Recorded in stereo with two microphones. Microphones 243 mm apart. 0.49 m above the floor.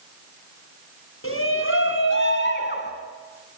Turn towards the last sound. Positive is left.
turn(degrees=40)  # may be behind; listen again after turning